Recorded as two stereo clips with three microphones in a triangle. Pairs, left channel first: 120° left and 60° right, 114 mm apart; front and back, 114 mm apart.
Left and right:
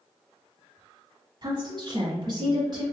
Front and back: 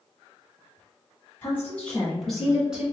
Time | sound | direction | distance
1.4 | a woman speaking | 60° right | 1.2 m